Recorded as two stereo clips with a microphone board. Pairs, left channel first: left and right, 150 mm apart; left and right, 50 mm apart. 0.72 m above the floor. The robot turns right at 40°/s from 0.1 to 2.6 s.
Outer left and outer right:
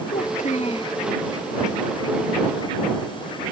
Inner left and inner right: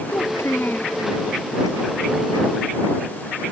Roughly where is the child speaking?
Behind left.